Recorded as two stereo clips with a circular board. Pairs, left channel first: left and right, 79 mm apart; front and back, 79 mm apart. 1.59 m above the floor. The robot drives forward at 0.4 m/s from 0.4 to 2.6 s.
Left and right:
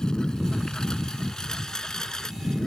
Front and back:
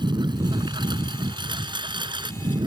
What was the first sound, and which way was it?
A lawn mower, 170° left.